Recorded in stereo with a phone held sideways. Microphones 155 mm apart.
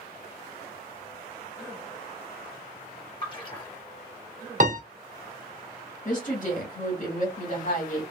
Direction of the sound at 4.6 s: 50° right (ahead or behind).